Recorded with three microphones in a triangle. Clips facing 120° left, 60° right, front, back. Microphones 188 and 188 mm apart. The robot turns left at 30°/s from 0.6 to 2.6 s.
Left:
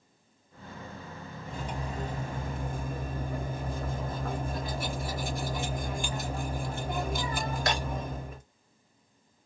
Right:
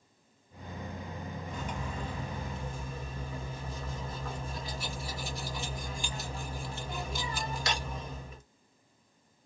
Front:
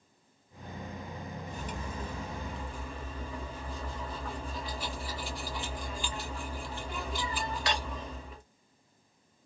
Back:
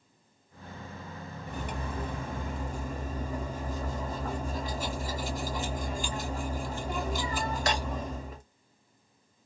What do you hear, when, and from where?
1.5 s cutlery clinking: 175° left, 0.9 m; by 8.4 s 145° left, 0.9 m